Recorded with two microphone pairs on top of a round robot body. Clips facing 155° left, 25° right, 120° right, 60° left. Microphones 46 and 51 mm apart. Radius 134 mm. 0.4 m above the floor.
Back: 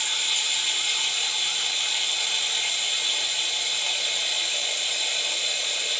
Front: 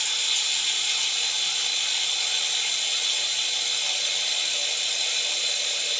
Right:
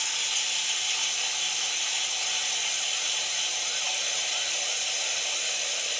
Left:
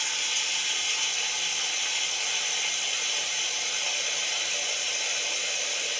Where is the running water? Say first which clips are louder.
Back 1 dB, left 1 dB; 80° left, 1.1 m.